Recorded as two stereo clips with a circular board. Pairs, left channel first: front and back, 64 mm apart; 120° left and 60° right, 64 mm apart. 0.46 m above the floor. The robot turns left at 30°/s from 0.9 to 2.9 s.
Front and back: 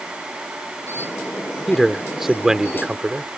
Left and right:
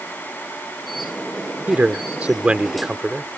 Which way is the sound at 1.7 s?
85° right.